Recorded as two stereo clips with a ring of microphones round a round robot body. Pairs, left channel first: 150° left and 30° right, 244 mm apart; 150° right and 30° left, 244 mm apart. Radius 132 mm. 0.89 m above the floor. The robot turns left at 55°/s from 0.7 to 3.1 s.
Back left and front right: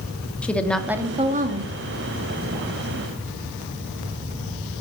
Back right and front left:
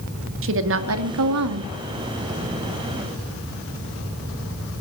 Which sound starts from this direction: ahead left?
A woman speaking, at 0.4 s.